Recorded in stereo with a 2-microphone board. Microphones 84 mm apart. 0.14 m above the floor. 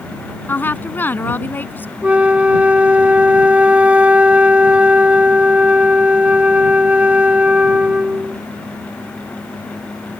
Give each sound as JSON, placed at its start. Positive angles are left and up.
{"t": 0.5, "sound": "a woman speaking", "side_deg": 25}
{"t": 2.0, "sound": "a flute", "side_deg": -15}